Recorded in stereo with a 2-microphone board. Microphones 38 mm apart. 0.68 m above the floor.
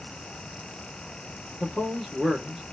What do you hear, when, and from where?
1.6 s a man speaking: 5° right (ahead or behind), 1.2 m